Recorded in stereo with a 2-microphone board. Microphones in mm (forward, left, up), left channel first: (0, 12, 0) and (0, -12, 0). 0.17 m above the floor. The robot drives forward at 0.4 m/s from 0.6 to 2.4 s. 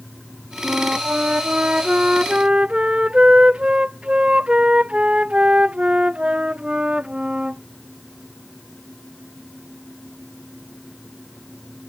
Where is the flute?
50° right (ahead or behind); by 7.6 s 45° right (ahead or behind).